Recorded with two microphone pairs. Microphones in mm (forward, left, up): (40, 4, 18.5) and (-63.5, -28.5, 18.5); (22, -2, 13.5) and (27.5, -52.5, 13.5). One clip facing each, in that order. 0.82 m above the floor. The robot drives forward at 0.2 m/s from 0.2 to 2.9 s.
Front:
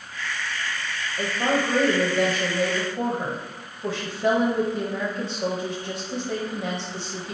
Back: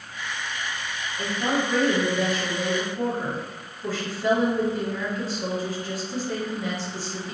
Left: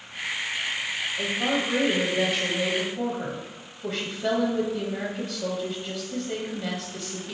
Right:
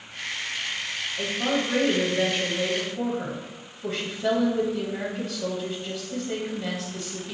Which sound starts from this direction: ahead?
A woman speaking, at 1.2 s.